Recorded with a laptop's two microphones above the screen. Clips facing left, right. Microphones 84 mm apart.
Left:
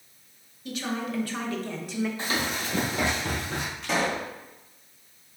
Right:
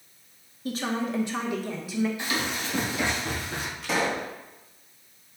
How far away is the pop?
About 1.9 m.